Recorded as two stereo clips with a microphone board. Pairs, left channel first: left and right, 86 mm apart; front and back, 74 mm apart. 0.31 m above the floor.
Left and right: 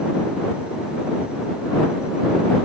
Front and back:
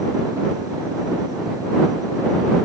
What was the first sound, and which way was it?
Only background noise.